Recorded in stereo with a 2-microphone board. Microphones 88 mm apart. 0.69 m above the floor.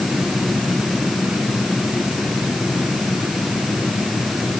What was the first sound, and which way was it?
Only background noise.